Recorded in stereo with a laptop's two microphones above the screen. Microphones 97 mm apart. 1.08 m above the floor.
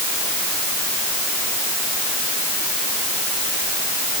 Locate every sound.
Only background noise.